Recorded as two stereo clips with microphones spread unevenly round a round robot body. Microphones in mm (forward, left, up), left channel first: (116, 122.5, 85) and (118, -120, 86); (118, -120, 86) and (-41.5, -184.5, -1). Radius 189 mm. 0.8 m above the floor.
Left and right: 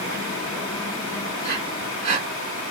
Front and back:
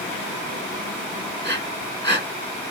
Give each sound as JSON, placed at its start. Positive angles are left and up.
{"t": 1.4, "sound": "breathing", "azimuth_deg": -30, "distance_m": 2.0}